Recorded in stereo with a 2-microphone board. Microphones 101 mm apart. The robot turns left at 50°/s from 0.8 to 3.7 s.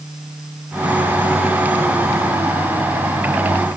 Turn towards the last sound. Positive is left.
No sound to turn to.